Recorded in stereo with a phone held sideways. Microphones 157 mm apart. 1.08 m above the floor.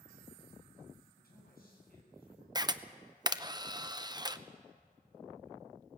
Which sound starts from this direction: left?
A man speaking, at 1.2 s.